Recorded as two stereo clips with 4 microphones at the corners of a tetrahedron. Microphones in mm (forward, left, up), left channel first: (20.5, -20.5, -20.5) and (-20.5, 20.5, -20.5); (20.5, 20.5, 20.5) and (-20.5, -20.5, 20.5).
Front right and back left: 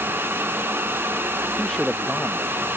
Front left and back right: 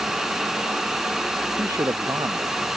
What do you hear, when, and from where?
1.6 s a man speaking: 125° right; by 2.7 s 130° right